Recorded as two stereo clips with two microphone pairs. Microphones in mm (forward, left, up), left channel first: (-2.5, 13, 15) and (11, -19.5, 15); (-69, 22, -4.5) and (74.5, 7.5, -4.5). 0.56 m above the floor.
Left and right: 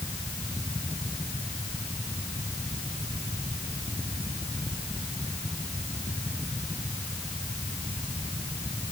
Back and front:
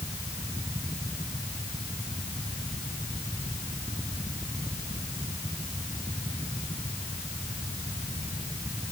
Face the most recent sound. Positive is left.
No sound to turn to.